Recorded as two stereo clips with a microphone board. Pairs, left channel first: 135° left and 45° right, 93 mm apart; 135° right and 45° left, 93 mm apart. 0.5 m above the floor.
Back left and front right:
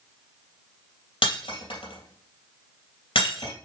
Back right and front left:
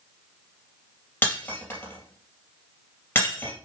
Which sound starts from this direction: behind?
Breaking glass, at 1.2 s.